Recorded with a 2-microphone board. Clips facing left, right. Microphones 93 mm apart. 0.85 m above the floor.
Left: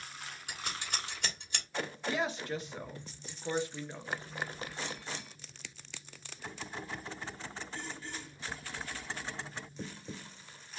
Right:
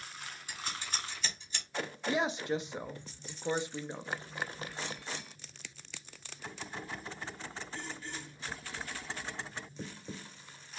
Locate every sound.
0.5 s scissors: 70° left (ahead or behind), 2.5 m
2.1 s a woman speaking: 20° right (ahead or behind), 0.7 m